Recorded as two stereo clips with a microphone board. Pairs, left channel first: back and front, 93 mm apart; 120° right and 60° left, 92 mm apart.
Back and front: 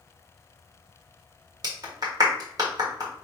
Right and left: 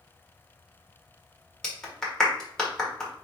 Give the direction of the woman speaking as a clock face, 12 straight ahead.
I don't hear a woman speaking.